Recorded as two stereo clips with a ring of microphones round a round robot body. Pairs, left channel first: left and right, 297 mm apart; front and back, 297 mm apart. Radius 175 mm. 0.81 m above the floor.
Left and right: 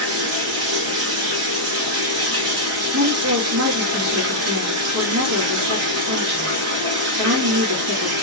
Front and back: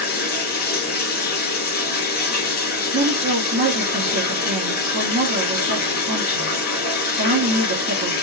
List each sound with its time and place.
0.0 s running water: 55° right, 1.5 m
2.9 s a woman speaking: 125° right, 1.9 m